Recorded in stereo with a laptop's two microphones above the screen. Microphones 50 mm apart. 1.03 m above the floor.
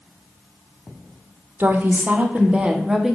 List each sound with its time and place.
1.6 s a woman speaking: 45° right (ahead or behind), 1.4 m; by 3.2 s 5° right (ahead or behind), 1.4 m